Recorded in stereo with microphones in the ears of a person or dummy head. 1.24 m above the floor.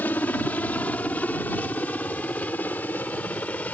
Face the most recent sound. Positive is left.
turn(degrees=5)  # may be behind; listen again after turning